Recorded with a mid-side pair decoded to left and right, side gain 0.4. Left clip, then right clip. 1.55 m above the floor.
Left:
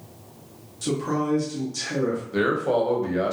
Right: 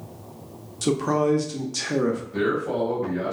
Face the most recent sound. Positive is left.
turn(degrees=60)